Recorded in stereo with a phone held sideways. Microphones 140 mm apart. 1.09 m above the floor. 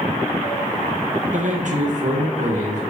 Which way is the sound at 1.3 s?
60° right (ahead or behind).